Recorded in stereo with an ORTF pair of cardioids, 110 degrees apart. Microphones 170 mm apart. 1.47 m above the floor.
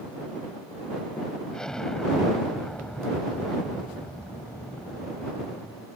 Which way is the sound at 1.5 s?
5° left.